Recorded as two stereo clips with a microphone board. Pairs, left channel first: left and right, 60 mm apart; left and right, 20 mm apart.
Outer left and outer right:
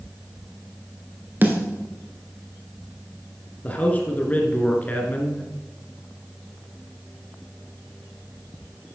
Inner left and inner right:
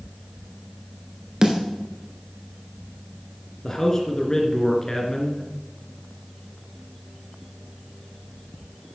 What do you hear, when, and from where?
1.4 s a snare drum: 35° right (ahead or behind), 1.5 m
3.6 s a man speaking: 25° left (ahead or behind), 1.7 m